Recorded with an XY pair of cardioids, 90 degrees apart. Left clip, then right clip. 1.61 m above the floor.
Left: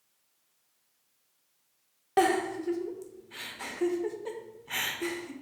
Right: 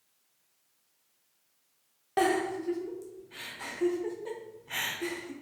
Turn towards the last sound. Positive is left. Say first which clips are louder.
# left 2 dB
turn(degrees=30)